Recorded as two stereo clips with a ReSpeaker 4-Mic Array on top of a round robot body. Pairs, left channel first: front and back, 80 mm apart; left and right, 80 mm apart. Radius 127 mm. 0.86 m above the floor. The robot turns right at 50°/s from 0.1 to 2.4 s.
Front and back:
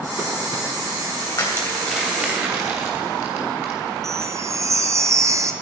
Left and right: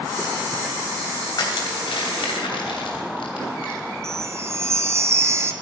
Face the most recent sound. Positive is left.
turn(degrees=-140)